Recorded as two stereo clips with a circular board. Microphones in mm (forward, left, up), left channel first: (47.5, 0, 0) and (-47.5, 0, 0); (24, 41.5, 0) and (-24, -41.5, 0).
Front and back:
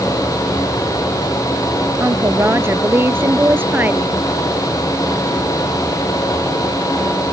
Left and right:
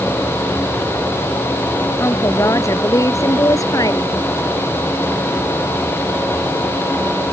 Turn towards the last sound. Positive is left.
turn(degrees=110)